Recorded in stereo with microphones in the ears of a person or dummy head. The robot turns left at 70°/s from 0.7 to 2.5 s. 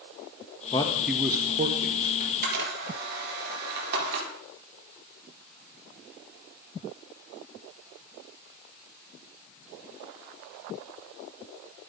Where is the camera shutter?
35° right (ahead or behind), 4.5 m; by 4.3 s 55° right (ahead or behind), 4.5 m.